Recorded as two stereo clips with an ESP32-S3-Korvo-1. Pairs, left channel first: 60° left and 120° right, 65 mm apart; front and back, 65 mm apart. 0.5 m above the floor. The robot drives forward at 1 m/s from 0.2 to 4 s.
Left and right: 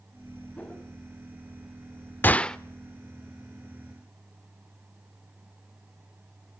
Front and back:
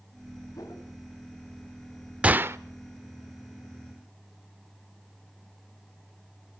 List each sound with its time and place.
0.6 s a whoosh: 10° right, 4 m
2.2 s a gunshot: 115° left, 0.6 m; by 2.6 s 140° left, 0.7 m